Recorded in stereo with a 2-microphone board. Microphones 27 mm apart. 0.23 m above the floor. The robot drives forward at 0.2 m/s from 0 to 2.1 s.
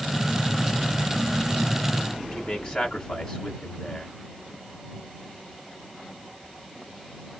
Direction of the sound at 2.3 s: 30° left (ahead or behind).